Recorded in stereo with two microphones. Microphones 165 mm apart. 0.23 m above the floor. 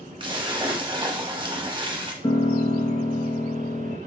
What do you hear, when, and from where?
0.2 s a splash: 30° right (ahead or behind), 0.7 m
2.2 s a piano: 30° left (ahead or behind), 0.8 m